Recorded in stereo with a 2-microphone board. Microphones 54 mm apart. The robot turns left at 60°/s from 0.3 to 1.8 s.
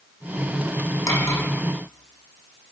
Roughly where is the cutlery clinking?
Left.